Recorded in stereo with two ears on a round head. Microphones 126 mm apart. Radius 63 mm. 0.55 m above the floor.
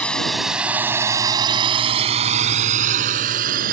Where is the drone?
10° left (ahead or behind); by 3.7 s 65° right (ahead or behind).